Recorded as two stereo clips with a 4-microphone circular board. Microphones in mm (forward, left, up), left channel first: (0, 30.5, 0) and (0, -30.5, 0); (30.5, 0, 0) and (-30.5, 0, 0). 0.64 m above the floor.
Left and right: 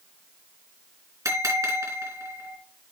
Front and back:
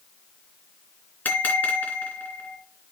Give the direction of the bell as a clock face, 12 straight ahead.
2 o'clock.